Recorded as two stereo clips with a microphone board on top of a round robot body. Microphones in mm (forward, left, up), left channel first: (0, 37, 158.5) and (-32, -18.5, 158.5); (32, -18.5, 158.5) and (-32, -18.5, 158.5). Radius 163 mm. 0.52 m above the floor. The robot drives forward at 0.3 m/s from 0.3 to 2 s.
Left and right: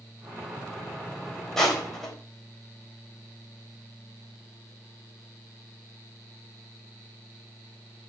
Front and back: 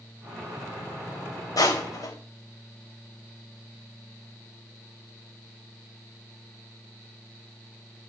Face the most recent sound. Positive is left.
turn(degrees=-25)